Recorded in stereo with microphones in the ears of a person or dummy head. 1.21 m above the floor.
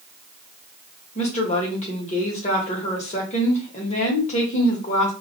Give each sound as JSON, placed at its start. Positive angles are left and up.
{"t": 1.1, "sound": "a woman speaking", "side_deg": 35, "distance_m": 0.9}